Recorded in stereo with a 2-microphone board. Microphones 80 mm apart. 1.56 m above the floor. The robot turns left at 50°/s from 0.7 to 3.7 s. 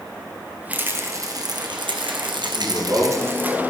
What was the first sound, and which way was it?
A rattle, 20° right.